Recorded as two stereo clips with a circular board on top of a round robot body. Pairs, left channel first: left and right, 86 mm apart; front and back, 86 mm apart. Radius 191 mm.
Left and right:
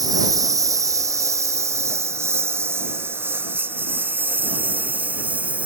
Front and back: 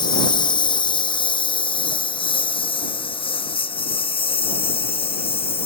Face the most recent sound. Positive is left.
turn(degrees=-15)